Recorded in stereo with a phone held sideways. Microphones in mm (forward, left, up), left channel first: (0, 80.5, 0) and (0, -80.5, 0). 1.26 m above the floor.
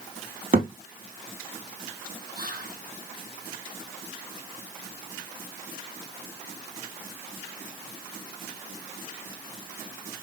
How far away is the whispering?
About 1.2 m.